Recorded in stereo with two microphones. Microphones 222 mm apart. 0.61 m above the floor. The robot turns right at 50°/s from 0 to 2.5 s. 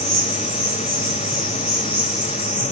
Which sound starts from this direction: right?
An insect, at 0.0 s.